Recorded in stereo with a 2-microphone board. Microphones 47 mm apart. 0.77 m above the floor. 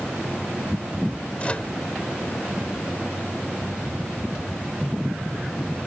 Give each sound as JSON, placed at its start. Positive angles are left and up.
{"t": 1.4, "sound": "a microwave", "side_deg": 30}